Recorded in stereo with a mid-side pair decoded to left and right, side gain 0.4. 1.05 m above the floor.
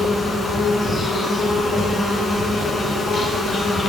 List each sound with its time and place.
0.0 s an insect: 45° left, 2.5 m